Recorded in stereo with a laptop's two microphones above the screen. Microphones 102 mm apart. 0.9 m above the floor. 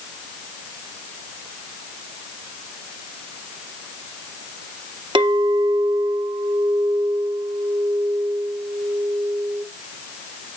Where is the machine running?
No machine running in this recording.